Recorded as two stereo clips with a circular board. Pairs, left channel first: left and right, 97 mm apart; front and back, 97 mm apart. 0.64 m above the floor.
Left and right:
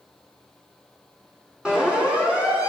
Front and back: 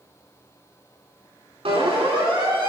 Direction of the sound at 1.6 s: 170° right.